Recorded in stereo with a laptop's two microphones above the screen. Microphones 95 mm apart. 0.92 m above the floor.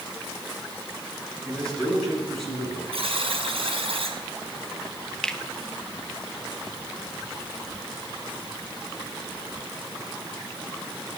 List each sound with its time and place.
1.4 s a man speaking: 10° left (ahead or behind), 6.5 m; by 2.8 s centre (ahead or behind), 7.5 m
2.9 s a buzzer: 75° right (ahead or behind), 4.5 m
5.2 s a finger snap: 5° left (ahead or behind), 1.0 m